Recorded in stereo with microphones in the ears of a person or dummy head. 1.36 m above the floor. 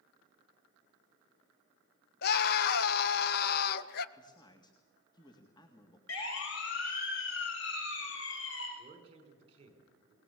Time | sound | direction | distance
2.2 | a scream | 50° left (ahead or behind) | 1.5 m
4.2 | a man speaking | 25° left (ahead or behind) | 2 m
6.1 | a siren | 80° left | 6 m
8.8 | a man speaking | 35° right (ahead or behind) | 5.5 m